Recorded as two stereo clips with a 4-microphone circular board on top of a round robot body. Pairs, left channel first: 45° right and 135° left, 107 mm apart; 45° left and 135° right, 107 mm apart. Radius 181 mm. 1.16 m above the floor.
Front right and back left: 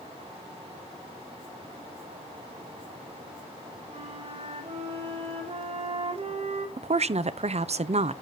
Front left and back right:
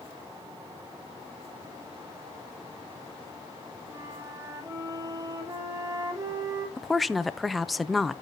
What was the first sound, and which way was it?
A flute, 165° left.